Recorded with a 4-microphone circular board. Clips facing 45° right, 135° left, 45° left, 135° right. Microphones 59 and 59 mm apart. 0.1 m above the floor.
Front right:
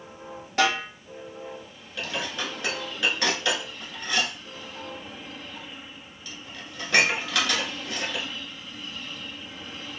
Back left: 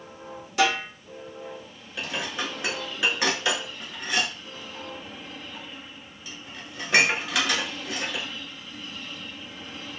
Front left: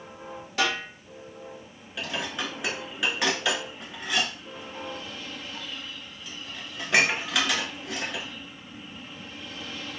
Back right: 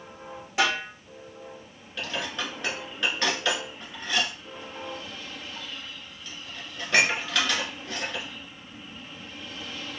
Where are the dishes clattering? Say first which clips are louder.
Even, even; 105° left, 0.8 m.